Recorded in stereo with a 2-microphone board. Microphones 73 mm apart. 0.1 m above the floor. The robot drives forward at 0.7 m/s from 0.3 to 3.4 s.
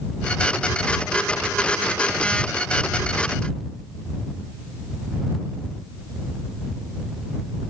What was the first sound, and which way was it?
Only background noise.